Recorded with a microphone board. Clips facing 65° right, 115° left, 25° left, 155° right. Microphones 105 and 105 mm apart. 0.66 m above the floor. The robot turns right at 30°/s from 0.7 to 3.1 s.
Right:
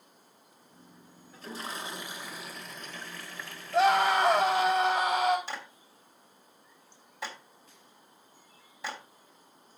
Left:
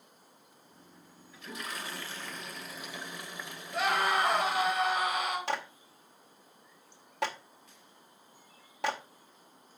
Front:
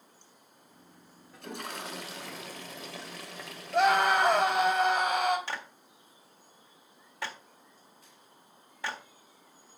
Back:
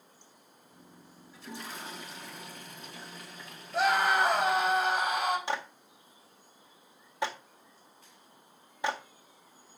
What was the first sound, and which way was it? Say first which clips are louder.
A toilet flushing: right 2 dB, front 3 dB; 15° right.